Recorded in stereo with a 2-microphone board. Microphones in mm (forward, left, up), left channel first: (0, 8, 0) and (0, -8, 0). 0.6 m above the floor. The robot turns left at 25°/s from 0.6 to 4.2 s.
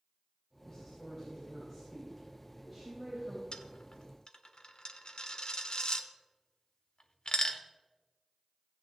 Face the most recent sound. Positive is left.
turn(degrees=55)  # may be behind; listen again after turning